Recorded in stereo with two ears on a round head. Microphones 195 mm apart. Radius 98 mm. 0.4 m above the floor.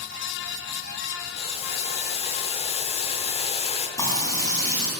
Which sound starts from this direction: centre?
Frying, at 4.0 s.